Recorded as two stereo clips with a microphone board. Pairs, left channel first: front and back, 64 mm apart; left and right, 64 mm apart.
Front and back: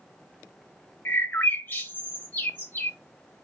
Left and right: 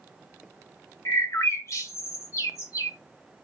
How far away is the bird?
About 1.1 m.